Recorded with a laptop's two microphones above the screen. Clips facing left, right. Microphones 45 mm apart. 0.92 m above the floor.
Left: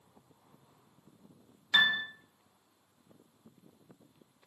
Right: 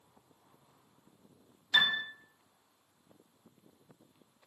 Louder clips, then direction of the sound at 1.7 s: Left 2 dB; 30° left (ahead or behind).